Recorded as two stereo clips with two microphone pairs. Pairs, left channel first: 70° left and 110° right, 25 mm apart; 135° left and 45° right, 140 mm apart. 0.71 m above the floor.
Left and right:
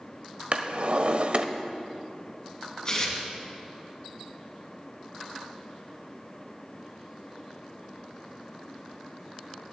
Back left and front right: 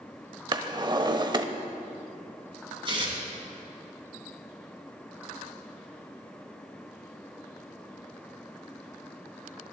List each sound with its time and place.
0.5 s a drawer: 95° right, 0.6 m
2.9 s tearing paper: 10° left, 2.5 m